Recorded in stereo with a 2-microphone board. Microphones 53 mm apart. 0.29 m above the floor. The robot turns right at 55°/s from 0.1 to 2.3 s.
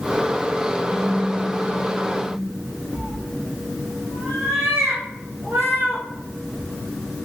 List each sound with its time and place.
0.9 s a phone buzzing: 155° right, 1.7 m; by 2.4 s 75° right, 1.7 m
2.9 s a cat meowing: 80° right, 1.5 m